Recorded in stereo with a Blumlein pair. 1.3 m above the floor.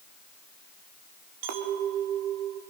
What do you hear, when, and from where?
1.4 s a clink: 50° right, 1.8 m